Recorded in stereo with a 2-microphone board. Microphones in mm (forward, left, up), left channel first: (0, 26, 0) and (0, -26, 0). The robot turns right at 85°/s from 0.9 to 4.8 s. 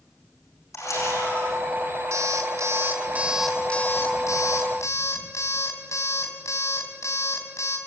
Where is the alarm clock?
115° right, 3.5 m; by 7.8 s 115° left, 3.5 m.